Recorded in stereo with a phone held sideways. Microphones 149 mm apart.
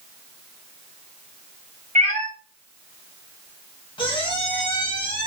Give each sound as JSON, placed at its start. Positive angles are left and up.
{"t": 1.9, "sound": "a cat meowing", "side_deg": -55, "distance_m": 1.4}
{"t": 4.0, "sound": "a squeak", "side_deg": 35, "distance_m": 0.7}